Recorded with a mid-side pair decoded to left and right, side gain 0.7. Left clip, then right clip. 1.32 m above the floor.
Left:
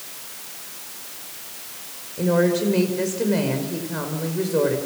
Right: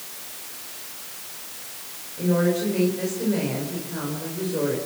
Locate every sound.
2.2 s a woman speaking: 35° left, 5.5 m